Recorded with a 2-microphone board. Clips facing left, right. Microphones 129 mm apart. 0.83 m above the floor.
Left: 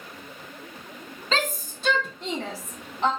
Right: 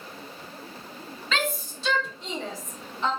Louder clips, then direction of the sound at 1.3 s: Left 1 dB; 35° left (ahead or behind).